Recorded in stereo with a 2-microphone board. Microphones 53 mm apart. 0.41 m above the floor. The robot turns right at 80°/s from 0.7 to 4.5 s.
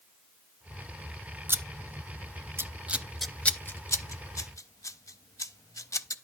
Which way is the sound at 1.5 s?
45° right (ahead or behind).